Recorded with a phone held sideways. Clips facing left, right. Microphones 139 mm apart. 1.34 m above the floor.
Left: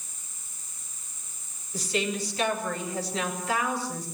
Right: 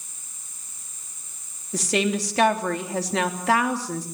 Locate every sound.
1.7 s a woman speaking: 85° right, 3 m